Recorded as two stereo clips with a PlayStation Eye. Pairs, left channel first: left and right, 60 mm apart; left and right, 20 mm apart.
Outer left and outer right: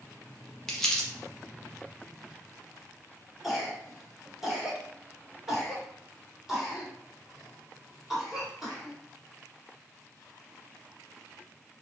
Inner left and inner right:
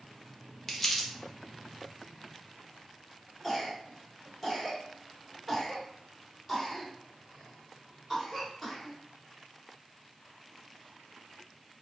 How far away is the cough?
About 1.3 m.